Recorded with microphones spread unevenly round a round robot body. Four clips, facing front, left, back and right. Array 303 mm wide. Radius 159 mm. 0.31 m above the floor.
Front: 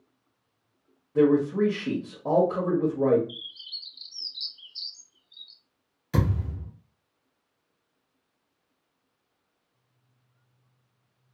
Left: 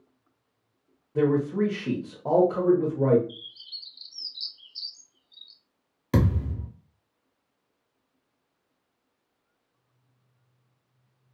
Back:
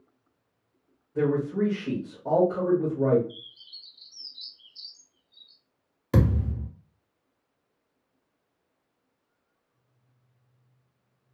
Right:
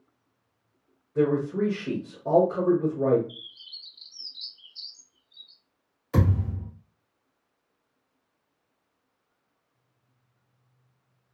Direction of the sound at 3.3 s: Straight ahead.